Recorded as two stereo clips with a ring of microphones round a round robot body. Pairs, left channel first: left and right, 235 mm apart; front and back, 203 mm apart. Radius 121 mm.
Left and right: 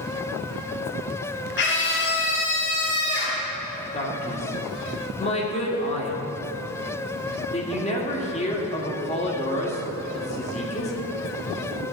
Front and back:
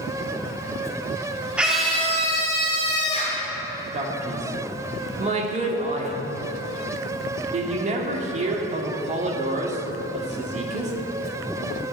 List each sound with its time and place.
1.6 s a scream: 95° left, 1.2 m; by 3.4 s 45° left, 1.7 m
3.9 s a man speaking: 140° left, 1.7 m